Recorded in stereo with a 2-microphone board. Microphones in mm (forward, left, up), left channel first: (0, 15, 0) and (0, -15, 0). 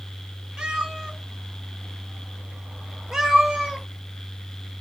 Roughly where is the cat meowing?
Right.